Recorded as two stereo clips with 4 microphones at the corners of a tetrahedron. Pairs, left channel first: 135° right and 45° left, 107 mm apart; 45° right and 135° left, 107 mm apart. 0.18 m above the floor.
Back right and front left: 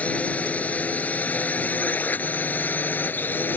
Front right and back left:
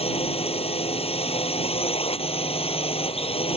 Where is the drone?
60° right; by 3.6 s 65° right.